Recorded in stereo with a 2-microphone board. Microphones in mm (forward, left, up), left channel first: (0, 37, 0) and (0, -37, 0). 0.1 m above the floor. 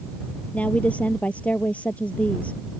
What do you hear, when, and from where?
0.5 s a woman speaking: 20° left (ahead or behind)